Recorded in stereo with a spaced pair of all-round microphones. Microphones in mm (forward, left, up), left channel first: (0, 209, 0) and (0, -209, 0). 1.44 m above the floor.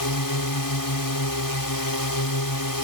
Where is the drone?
50° left (ahead or behind).